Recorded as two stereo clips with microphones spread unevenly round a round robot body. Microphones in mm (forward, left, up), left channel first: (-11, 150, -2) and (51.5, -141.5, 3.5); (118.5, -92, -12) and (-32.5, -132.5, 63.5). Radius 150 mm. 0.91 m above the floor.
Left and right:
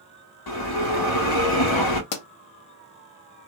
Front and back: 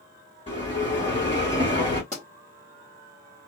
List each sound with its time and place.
0.5 s a bell: 95° left, 0.9 m
2.1 s a pop: 130° left, 0.6 m